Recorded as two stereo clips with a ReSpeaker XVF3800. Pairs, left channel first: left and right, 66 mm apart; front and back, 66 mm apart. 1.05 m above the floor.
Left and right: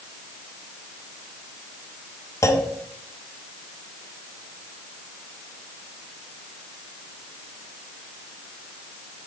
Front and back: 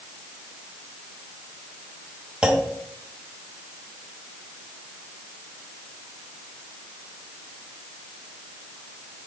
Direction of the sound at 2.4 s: 105° left.